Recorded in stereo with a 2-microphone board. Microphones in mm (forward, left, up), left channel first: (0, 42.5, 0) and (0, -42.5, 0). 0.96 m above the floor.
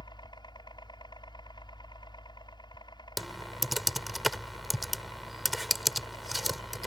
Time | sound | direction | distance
0.0 | a helicopter | 60° left (ahead or behind) | ?
3.2 | typing on a keyboard | centre (ahead or behind) | ?